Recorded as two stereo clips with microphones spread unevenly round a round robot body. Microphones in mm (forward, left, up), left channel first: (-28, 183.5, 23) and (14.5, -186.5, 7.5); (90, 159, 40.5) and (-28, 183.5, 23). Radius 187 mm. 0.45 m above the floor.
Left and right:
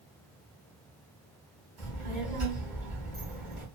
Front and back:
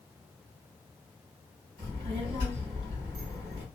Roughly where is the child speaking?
Behind right.